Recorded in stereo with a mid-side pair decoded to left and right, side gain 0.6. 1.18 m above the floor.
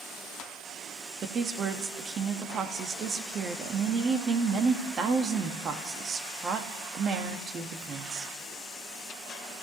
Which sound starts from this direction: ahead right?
A woman speaking, at 1.2 s.